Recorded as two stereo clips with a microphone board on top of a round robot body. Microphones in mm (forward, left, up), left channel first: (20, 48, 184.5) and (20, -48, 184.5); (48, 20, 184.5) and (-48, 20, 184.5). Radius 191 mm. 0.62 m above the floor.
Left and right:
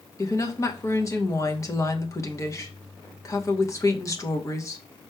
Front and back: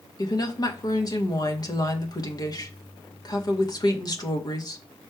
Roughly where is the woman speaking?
Ahead left.